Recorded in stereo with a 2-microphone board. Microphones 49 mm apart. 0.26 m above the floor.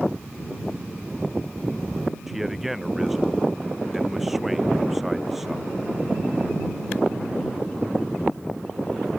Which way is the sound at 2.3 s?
5° right (ahead or behind).